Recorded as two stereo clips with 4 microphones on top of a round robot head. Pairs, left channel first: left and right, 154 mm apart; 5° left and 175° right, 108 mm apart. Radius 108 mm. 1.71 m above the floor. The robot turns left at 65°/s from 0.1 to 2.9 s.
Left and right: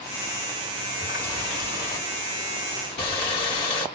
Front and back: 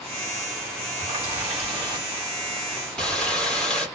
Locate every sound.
1.0 s a running tap: 150° right, 1.6 m; by 3.9 s 85° left, 1.6 m